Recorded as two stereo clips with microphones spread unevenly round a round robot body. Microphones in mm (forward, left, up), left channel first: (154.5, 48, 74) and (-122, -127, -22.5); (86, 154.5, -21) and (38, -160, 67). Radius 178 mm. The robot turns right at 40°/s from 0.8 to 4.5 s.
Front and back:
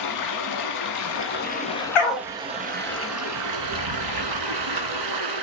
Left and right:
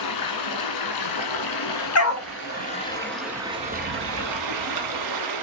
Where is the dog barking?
45° left, 1.1 m; by 2.3 s 60° left, 1.1 m.